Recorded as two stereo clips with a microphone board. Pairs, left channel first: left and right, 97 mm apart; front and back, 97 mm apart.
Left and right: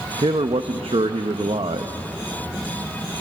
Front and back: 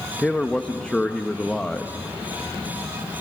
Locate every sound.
0.2 s a man speaking: 80° right, 0.7 m